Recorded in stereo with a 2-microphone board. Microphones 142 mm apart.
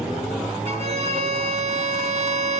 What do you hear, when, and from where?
0.7 s a violin: 50° right (ahead or behind), 2.5 m